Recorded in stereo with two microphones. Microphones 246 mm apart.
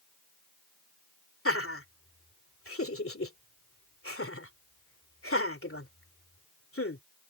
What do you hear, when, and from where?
1.4 s laughter: 60° left (ahead or behind)